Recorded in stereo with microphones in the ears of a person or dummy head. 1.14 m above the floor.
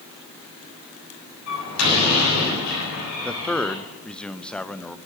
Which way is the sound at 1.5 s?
80° left.